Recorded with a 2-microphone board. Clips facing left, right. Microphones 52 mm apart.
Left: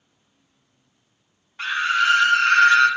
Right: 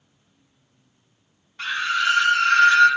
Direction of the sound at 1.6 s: 15° left (ahead or behind).